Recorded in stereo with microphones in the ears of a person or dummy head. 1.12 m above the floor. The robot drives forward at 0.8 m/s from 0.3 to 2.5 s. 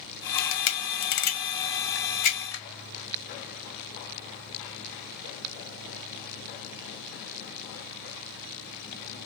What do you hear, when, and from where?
0.4 s a camera shutter: 60° left (ahead or behind), 1.3 m; by 2.6 s 30° left (ahead or behind), 2 m